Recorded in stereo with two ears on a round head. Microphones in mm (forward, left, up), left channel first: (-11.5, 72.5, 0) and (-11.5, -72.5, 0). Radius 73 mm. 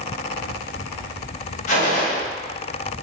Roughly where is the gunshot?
Left.